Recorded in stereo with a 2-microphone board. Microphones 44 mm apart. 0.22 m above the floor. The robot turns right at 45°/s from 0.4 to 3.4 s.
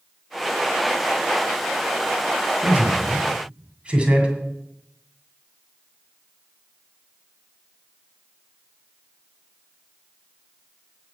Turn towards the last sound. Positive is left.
turn(degrees=-25)  # may be behind; listen again after turning